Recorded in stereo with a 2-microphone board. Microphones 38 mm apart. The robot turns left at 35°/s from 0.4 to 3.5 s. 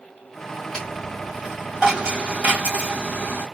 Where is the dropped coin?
20° left, 2 m; by 3.5 s 75° right, 2 m.